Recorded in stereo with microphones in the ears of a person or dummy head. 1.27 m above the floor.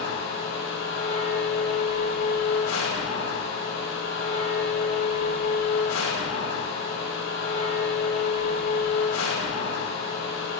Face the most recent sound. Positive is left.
turn(degrees=70)  # may be behind; listen again after turning